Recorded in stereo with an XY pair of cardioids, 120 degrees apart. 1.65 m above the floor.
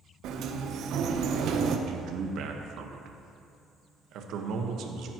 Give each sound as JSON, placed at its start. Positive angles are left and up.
{"t": 0.2, "sound": "a sliding door", "azimuth_deg": -65, "distance_m": 0.9}
{"t": 1.9, "sound": "a man speaking", "azimuth_deg": -65, "distance_m": 1.4}